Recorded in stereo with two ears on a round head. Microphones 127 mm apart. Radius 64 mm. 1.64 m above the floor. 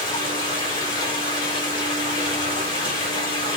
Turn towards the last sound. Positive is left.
turn(degrees=35)  # may be behind; listen again after turning